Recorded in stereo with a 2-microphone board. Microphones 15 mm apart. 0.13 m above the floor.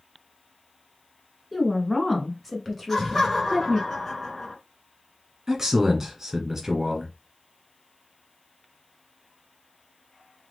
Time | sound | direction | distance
1.5 | a woman speaking | 5° left (ahead or behind) | 1.3 m
2.9 | laughter | 20° left (ahead or behind) | 1.2 m
5.5 | a man speaking | 20° right (ahead or behind) | 1.7 m